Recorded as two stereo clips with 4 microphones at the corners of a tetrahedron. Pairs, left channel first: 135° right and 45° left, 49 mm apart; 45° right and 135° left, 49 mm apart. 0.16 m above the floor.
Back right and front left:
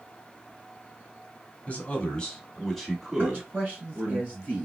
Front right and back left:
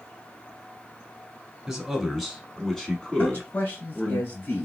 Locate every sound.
1.7 s a man speaking: 150° right, 1.3 m; by 4.2 s straight ahead, 1.4 m
3.2 s a man speaking: 10° right, 2.5 m